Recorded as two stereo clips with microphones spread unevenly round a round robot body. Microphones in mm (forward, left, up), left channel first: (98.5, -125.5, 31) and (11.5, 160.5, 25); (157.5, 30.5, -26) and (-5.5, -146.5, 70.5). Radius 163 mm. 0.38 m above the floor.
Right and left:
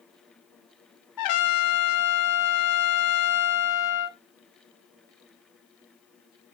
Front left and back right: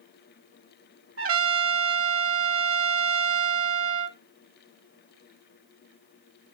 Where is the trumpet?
95° right, 1.4 m.